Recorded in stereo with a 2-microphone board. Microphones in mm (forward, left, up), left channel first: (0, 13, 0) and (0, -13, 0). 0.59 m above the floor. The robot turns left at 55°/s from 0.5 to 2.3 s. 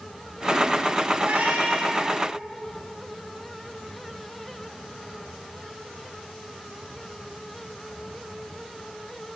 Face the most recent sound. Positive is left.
turn(degrees=-130)